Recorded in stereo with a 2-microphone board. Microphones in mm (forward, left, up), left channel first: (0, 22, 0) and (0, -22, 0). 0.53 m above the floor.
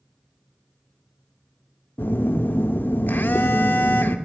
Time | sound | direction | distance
2.0 | a phone buzzing | 55° left (ahead or behind) | 0.6 m